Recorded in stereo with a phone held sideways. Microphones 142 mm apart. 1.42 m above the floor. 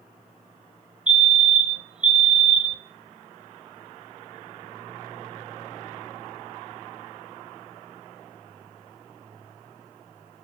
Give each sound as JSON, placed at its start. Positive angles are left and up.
{"t": 1.1, "sound": "a fire alarm", "side_deg": -5, "distance_m": 0.7}